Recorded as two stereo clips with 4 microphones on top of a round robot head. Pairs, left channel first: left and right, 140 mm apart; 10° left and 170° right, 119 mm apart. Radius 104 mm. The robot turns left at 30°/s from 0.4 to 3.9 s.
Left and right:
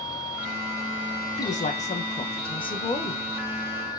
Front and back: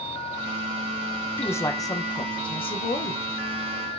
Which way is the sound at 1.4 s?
80° left.